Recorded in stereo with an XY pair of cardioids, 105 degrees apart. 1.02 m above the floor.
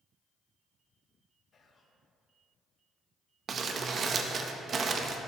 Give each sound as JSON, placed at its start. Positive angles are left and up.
{"t": 1.5, "sound": "whispering", "azimuth_deg": 45, "distance_m": 0.7}
{"t": 3.5, "sound": "crumpling", "azimuth_deg": -45, "distance_m": 0.6}